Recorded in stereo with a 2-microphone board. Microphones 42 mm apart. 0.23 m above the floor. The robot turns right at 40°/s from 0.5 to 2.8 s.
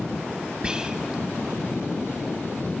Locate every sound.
0.6 s whispering: 20° right (ahead or behind), 1.0 m; by 1.2 s 10° right (ahead or behind), 1.0 m